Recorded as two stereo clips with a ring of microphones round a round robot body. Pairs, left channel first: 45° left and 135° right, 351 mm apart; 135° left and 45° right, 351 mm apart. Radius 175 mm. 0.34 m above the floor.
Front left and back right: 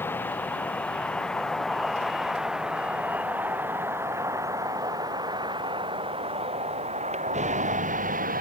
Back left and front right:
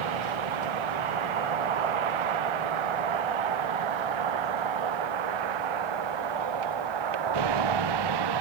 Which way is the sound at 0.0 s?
40° right.